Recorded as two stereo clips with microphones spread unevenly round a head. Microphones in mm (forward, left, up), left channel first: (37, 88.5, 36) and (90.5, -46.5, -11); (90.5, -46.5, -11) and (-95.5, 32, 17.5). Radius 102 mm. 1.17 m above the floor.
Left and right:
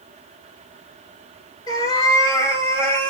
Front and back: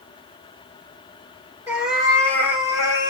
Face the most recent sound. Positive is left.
turn(degrees=50)